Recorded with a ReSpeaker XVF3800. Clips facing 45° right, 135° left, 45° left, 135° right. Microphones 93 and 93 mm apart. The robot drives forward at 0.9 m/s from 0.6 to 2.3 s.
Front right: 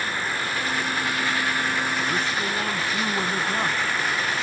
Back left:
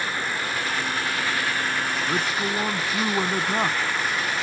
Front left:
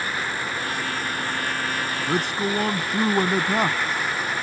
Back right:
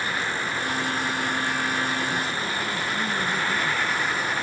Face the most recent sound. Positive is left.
turn(degrees=65)